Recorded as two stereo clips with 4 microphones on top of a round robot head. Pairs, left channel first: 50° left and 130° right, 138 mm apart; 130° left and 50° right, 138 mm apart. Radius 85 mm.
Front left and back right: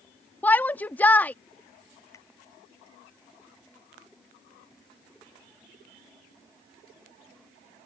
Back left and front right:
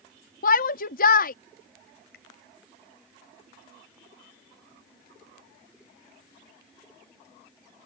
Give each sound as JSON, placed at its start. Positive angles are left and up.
{"t": 0.4, "sound": "a shout", "azimuth_deg": 125}
{"t": 2.1, "sound": "a finger snap", "azimuth_deg": 115}